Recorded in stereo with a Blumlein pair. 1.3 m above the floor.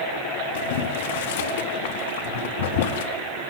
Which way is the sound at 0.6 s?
55° left.